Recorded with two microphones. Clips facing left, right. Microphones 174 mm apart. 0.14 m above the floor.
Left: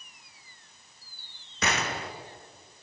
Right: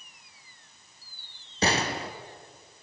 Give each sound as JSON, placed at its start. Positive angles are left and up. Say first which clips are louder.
{"t": 1.6, "sound": "a gunshot", "louder": "right 4 dB", "side_deg": -30, "distance_m": 1.9}